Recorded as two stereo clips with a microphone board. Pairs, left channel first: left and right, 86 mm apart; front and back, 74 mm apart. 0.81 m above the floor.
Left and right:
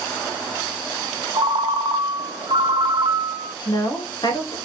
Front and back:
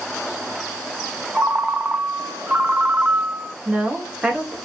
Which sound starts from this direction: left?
A woman speaking, at 3.6 s.